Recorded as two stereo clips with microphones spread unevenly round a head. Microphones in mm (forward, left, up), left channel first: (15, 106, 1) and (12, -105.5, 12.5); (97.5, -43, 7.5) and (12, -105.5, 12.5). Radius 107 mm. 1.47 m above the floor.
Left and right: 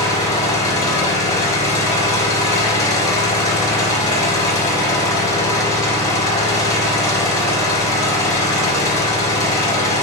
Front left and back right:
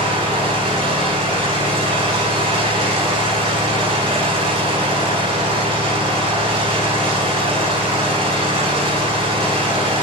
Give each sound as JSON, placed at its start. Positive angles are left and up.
{"t": 0.0, "sound": "an engine running", "azimuth_deg": 165, "distance_m": 2.5}